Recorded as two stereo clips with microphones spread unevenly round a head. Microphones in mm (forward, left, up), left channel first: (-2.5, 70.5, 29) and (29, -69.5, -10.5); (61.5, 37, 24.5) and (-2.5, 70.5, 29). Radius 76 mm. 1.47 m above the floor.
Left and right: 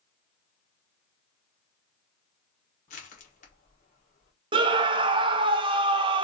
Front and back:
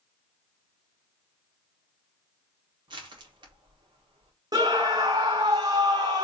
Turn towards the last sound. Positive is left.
turn(degrees=-140)